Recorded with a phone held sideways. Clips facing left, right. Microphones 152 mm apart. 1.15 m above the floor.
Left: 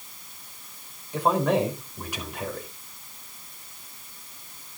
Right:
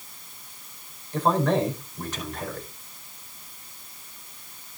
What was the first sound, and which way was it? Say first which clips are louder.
A man speaking: even; 10° left (ahead or behind).